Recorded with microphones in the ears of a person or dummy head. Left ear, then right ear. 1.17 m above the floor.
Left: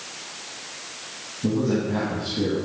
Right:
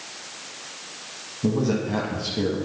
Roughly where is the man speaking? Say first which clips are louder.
Even; right.